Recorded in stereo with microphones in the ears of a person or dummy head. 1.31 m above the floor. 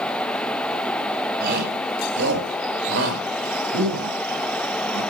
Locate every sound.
1.4 s a shout: 60° right (ahead or behind), 4.5 m; by 5.0 s 85° right, 7 m